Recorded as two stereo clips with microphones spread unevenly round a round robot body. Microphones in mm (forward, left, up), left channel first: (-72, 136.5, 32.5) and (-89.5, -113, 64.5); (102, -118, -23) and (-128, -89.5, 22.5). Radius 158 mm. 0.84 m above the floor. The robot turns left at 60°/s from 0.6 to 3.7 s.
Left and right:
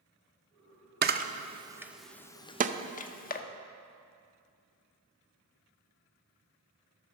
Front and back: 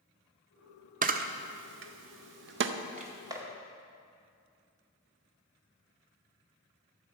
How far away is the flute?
No flute in this recording.